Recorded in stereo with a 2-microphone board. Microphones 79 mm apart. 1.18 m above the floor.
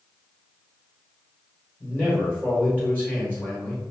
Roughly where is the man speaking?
Left.